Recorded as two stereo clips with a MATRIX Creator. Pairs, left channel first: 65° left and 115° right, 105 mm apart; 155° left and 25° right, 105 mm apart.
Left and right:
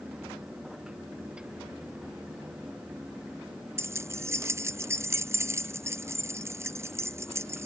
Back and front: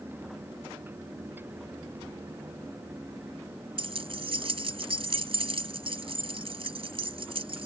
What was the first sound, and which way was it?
Keys jangling, 50° right.